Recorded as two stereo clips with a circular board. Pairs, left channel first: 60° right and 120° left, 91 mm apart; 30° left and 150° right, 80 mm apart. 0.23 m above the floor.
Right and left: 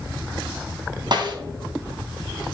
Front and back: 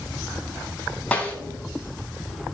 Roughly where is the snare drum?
Left.